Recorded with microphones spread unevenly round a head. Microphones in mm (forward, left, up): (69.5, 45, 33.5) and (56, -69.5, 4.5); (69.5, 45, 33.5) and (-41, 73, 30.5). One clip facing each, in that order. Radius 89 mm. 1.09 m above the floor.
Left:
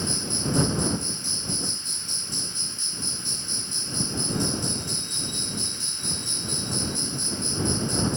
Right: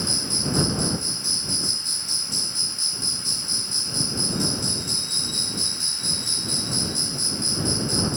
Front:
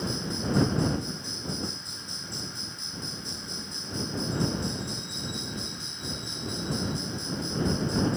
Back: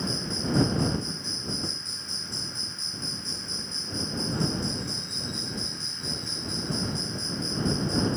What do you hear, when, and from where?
0.0 s an insect: 95° right